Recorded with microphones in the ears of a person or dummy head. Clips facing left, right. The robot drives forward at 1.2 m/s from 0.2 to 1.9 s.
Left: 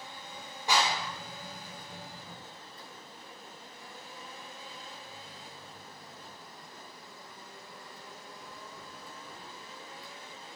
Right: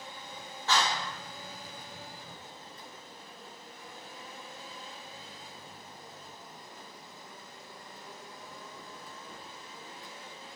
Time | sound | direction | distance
0.7 | a clap | 15° left (ahead or behind) | 3.5 m